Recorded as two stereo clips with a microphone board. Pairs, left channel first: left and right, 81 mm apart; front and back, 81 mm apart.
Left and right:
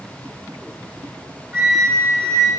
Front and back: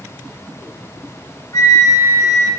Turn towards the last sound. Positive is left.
turn(degrees=-30)